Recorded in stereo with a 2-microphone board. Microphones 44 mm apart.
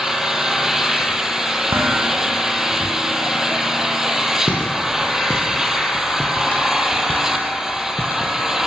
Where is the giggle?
I don't hear a giggle.